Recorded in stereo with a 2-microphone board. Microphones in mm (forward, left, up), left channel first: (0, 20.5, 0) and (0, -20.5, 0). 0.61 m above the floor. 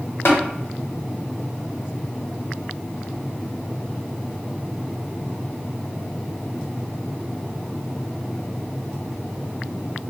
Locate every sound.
0.2 s tapping: 85° left, 1.0 m